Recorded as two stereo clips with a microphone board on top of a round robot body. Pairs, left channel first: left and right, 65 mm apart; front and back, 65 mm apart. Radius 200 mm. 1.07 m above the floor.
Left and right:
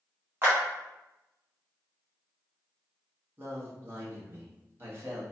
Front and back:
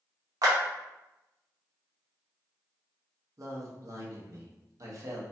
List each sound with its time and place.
0.4 s a clap: 145° right, 0.9 m
3.4 s a man speaking: 145° right, 1.2 m